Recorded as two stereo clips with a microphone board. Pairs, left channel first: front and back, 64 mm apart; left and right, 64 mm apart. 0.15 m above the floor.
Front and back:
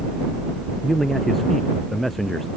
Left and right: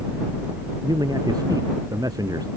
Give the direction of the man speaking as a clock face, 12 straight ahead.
3 o'clock.